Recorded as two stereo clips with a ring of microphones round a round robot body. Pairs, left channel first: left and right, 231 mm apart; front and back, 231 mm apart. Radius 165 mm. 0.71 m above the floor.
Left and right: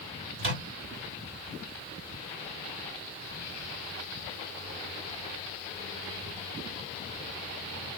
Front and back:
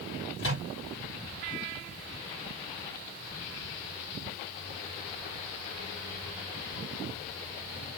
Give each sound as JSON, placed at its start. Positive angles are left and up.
{"t": 0.4, "sound": "a microwave", "azimuth_deg": -55, "distance_m": 2.5}